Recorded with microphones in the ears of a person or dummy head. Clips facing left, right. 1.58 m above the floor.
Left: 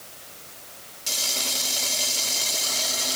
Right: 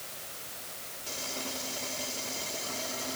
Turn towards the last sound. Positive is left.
No sound to turn to.